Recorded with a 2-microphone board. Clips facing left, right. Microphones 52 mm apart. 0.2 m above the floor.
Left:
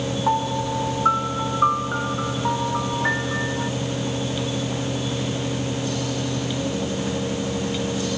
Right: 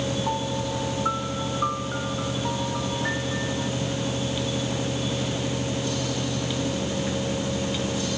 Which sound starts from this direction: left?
A piano, at 0.3 s.